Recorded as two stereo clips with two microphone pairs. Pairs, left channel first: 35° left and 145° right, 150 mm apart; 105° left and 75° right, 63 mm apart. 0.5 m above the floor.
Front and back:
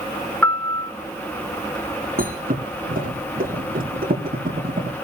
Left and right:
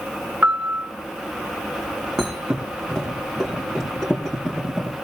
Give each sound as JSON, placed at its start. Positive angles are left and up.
{"t": 0.4, "sound": "a piano", "azimuth_deg": -45, "distance_m": 1.2}
{"t": 2.2, "sound": "a thud", "azimuth_deg": -165, "distance_m": 6.5}